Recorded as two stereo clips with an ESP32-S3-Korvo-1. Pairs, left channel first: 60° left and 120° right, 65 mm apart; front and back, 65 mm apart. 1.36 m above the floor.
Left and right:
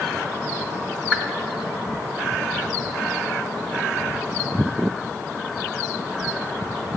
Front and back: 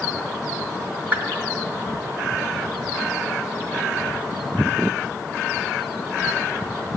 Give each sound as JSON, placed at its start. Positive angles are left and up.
{"t": 1.1, "sound": "a whoosh", "azimuth_deg": 180, "distance_m": 1.3}